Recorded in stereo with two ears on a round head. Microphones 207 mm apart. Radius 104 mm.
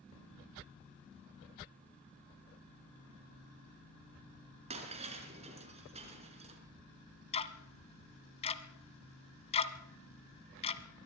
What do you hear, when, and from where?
4.7 s breaking glass: 30° right (ahead or behind), 4 m
7.3 s ticking: 25° left (ahead or behind), 1.2 m